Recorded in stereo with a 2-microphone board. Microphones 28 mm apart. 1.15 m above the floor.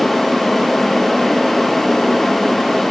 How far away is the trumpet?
I don't hear a trumpet.